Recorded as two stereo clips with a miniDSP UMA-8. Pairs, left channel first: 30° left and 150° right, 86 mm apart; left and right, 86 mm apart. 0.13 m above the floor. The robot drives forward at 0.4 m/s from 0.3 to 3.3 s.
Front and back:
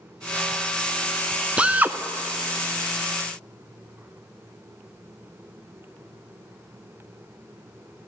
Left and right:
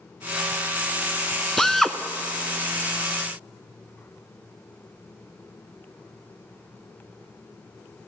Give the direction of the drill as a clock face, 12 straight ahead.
7 o'clock.